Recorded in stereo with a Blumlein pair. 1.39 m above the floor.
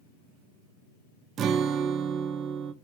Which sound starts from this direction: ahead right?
A guitar, at 1.4 s.